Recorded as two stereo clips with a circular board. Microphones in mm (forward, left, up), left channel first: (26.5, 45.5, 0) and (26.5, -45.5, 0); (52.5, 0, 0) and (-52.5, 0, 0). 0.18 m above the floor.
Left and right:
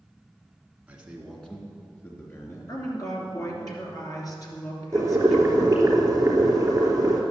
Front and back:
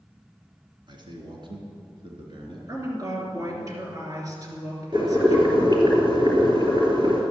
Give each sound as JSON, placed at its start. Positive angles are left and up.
{"t": 0.9, "sound": "a man speaking", "azimuth_deg": -165, "distance_m": 2.0}
{"t": 2.7, "sound": "a woman speaking", "azimuth_deg": 130, "distance_m": 3.0}
{"t": 4.9, "sound": "boiling", "azimuth_deg": -145, "distance_m": 3.0}